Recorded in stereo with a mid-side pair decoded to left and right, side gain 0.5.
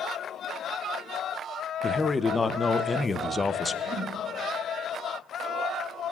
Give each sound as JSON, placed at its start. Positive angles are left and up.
{"t": 1.8, "sound": "a man speaking", "azimuth_deg": 25, "distance_m": 0.7}
{"t": 3.9, "sound": "a whoosh", "azimuth_deg": -35, "distance_m": 1.4}